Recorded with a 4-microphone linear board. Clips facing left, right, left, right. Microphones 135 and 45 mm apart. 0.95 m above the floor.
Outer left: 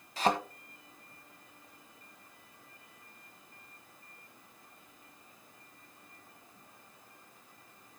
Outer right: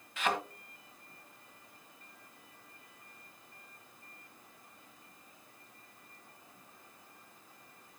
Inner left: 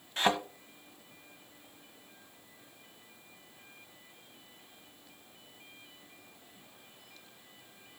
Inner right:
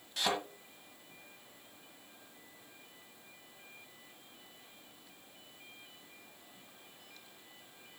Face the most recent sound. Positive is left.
turn(degrees=35)  # may be behind; listen again after turning